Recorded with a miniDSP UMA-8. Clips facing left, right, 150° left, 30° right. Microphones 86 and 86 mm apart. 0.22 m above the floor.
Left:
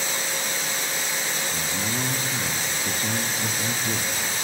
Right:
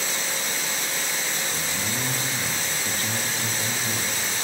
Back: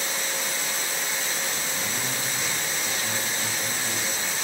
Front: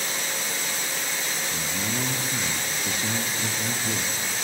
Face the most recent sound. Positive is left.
turn(degrees=30)